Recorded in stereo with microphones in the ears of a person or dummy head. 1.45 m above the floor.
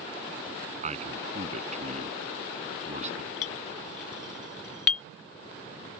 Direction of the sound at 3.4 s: 15° left (ahead or behind).